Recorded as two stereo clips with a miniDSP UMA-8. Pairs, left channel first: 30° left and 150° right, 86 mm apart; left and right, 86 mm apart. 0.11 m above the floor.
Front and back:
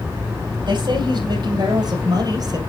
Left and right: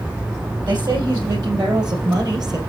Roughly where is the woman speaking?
Behind right.